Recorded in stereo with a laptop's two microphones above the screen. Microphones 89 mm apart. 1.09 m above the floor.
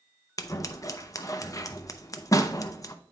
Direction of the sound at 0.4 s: 40° left (ahead or behind).